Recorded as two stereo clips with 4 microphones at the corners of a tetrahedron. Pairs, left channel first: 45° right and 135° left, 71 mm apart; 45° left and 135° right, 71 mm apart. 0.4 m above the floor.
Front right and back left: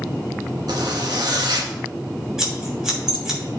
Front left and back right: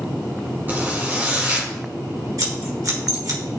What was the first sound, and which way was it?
A zipper, 160° left.